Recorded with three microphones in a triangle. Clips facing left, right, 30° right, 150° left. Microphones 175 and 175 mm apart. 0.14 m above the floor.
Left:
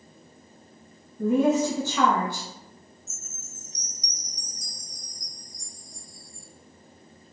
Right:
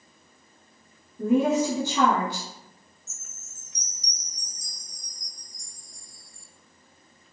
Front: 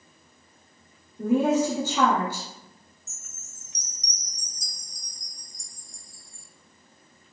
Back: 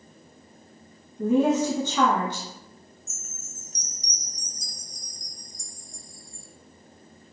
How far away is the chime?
About 0.7 m.